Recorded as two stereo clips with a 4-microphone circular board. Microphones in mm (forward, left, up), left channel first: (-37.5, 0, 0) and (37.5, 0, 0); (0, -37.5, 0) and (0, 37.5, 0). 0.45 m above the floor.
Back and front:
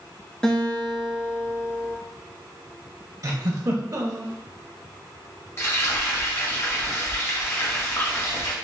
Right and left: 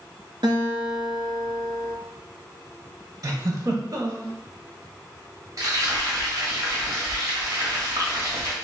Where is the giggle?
45° left, 0.6 m.